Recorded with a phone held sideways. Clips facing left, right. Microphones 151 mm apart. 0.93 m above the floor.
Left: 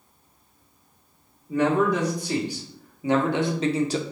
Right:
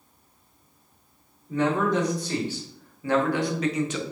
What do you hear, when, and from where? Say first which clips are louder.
1.5 s a man speaking: left 2 dB; 10° left (ahead or behind), 2 m; by 4.0 s 35° left (ahead or behind), 0.6 m